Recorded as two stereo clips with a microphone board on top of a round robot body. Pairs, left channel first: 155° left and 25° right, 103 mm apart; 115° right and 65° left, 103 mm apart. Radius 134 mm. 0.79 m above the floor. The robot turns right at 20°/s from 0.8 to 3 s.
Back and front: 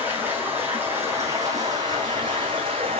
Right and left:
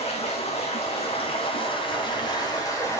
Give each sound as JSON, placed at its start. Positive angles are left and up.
{"t": 0.0, "sound": "running water", "azimuth_deg": -90, "distance_m": 3.5}